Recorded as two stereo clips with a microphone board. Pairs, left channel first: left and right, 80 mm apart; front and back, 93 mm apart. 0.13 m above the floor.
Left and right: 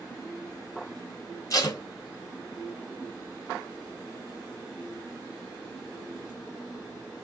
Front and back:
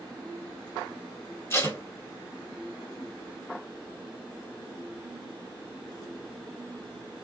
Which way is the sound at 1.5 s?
55° left.